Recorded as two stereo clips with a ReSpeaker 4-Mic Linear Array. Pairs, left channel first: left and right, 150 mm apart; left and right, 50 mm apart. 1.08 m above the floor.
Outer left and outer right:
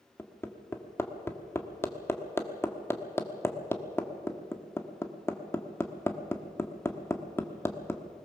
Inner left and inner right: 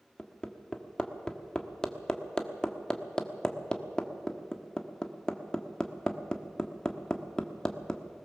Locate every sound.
0.2 s hammering: 15° left (ahead or behind), 1.3 m